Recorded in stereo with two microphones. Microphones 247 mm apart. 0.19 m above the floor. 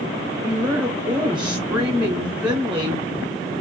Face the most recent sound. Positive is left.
turn(degrees=-20)  # may be behind; listen again after turning